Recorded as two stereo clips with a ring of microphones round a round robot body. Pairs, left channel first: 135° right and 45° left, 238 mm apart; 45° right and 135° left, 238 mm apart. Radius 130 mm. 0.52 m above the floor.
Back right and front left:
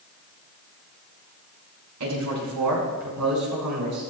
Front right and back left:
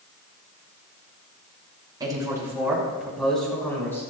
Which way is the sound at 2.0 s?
60° left.